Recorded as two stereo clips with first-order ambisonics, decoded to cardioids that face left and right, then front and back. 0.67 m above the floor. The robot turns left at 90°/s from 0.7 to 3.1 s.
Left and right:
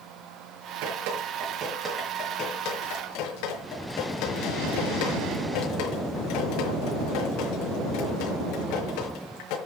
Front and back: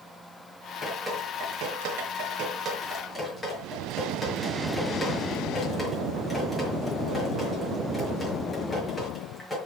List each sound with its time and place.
0.8 s dripping: 70° right, 6 m; by 9.6 s 85° left, 6 m